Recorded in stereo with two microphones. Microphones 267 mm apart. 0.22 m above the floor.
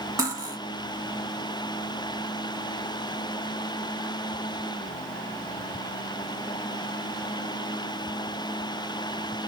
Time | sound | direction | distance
0.2 | cutlery clinking | 15° right (ahead or behind) | 1.1 m